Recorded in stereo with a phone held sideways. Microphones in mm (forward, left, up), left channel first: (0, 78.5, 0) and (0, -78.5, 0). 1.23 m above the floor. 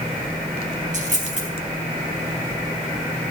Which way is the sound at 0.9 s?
50° right (ahead or behind).